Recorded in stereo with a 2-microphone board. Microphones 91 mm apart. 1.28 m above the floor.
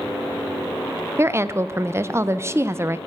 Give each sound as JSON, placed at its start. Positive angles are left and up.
{"t": 1.2, "sound": "a woman speaking", "side_deg": -30, "distance_m": 0.5}